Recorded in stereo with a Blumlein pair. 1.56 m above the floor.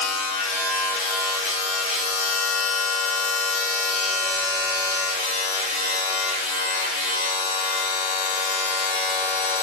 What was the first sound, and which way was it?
A machine running, 45° left.